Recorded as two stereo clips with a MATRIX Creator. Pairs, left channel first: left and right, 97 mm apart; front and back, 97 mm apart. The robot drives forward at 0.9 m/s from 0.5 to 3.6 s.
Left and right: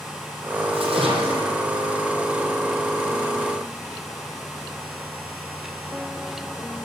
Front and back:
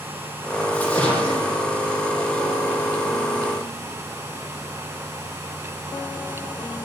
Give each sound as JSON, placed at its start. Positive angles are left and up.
{"t": 0.7, "sound": "a splash", "azimuth_deg": -75, "distance_m": 6.0}